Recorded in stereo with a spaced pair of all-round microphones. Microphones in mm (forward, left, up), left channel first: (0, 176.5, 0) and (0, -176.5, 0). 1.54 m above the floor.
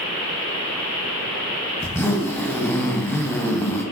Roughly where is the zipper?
Centre.